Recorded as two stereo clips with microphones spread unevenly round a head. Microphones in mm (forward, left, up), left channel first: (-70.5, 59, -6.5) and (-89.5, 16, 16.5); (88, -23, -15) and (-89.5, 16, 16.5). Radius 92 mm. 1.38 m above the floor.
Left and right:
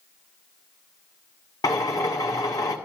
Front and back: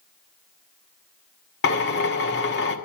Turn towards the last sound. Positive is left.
turn(degrees=20)